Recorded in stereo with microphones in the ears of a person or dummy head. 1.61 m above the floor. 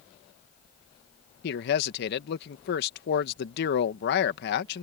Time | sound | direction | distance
1.4 | a man speaking | 60° left (ahead or behind) | ?